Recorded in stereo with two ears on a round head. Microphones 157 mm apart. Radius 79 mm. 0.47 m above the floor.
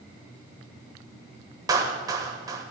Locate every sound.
1.7 s a clap: 20° right (ahead or behind), 1.9 m